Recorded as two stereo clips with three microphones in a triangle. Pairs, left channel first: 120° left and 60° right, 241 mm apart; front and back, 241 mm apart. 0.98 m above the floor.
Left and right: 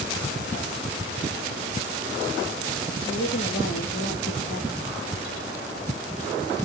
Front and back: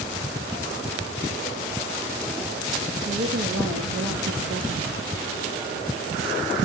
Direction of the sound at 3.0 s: 165° left.